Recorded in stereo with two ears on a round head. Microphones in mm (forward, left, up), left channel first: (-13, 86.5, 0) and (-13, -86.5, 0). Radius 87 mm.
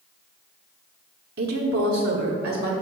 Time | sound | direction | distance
1.4 | a woman speaking | 50° right (ahead or behind) | 0.9 m